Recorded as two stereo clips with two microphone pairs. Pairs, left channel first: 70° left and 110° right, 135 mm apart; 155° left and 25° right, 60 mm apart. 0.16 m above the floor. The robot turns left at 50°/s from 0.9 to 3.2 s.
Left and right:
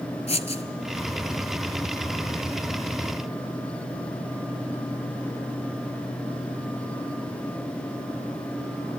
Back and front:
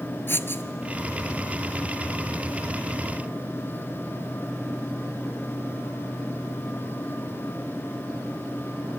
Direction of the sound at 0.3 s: 110° left.